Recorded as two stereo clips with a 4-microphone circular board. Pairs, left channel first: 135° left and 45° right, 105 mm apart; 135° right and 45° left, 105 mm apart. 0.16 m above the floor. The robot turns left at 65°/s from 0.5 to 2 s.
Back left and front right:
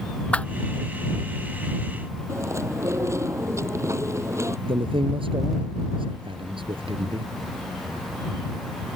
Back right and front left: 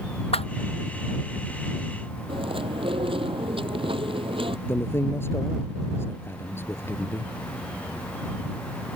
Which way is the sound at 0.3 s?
145° right.